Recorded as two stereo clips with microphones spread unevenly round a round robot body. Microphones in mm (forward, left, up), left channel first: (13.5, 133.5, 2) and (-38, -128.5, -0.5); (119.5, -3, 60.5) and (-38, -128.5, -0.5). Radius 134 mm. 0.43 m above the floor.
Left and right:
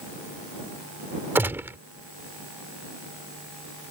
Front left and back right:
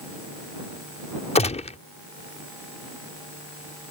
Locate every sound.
1.4 s a gunshot: 25° right